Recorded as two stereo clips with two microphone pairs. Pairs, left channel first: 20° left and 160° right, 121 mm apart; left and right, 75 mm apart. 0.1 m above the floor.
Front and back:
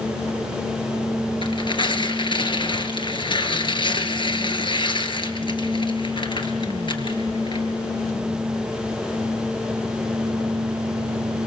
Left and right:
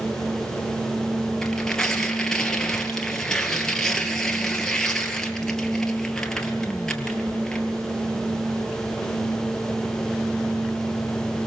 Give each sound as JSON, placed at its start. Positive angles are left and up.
{"t": 1.4, "sound": "tearing paper", "azimuth_deg": 10, "distance_m": 2.0}